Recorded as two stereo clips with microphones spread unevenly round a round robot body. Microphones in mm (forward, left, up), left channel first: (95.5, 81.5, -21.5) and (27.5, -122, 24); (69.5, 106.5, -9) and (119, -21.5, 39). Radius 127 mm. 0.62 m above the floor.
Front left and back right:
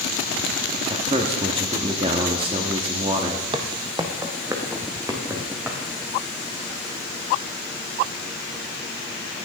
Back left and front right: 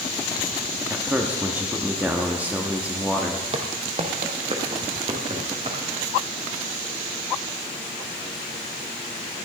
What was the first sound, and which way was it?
A man speaking, 175° right.